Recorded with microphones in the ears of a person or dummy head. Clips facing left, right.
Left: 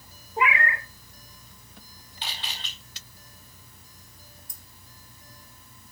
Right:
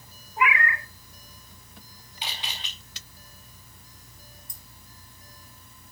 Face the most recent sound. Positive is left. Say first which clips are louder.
# right 1 dB
turn(degrees=70)  # may be behind; listen again after turning